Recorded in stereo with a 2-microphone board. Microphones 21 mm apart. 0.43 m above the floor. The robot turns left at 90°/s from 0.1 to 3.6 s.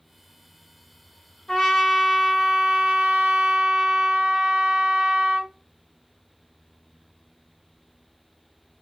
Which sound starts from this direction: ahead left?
A trumpet, at 1.5 s.